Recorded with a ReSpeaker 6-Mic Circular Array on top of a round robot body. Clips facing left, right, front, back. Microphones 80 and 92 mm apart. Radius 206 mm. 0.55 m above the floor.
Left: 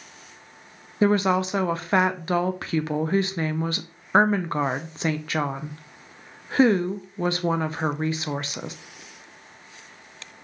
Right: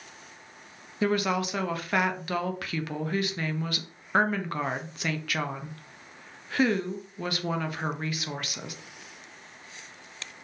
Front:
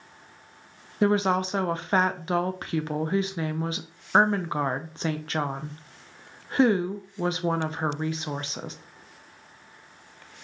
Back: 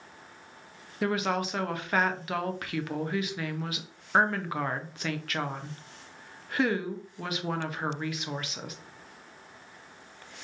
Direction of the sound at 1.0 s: 45° left.